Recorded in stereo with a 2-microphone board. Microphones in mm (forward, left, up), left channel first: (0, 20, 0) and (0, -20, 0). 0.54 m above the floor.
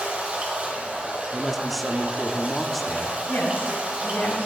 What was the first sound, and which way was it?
Running water, 35° right (ahead or behind).